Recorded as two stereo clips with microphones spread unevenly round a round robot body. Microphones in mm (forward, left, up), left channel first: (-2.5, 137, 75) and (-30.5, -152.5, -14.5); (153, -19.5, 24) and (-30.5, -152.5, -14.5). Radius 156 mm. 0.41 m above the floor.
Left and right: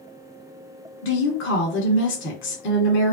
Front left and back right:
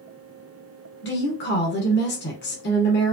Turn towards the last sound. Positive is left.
turn(degrees=35)